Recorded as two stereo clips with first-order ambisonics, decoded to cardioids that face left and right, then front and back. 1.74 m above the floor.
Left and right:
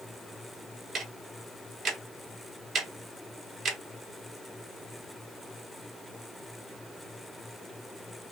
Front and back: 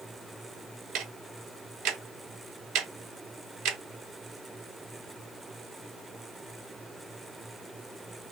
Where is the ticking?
150° right, 0.8 m.